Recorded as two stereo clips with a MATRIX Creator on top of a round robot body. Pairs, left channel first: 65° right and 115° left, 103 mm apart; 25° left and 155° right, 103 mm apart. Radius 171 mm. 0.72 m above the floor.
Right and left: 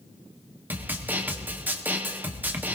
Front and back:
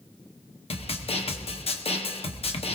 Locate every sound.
0.7 s a snare drum: 40° left, 1.6 m